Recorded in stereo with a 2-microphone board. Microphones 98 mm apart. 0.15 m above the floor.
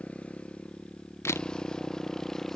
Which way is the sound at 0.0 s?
15° left (ahead or behind).